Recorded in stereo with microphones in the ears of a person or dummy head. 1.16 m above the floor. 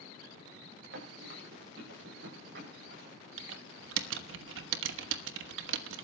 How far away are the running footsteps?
About 8.5 m.